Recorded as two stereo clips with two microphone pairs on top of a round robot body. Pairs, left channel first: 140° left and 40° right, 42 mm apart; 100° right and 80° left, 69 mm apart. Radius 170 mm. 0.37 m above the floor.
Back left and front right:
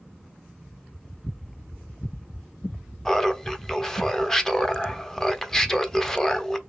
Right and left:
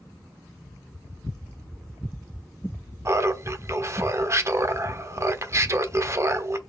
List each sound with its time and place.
3.0 s laughter: 60° left, 0.9 m